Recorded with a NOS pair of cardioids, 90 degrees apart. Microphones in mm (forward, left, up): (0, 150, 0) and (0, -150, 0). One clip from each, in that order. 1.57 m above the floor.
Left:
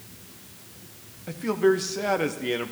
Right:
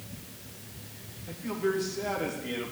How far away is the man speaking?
About 1.5 m.